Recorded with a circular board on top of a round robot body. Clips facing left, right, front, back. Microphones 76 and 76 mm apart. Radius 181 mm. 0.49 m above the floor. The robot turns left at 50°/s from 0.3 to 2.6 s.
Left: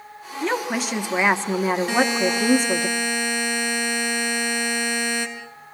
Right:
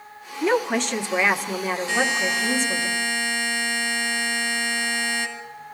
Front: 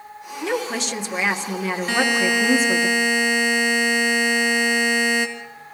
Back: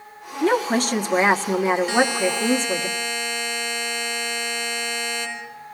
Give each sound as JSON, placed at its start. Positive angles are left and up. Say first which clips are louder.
{"t": 0.4, "sound": "a woman speaking", "louder": "right 3 dB, back 5 dB", "azimuth_deg": -170, "distance_m": 1.6}
{"t": 1.9, "sound": "a buzzer", "louder": "left 3 dB, even", "azimuth_deg": 50, "distance_m": 3.0}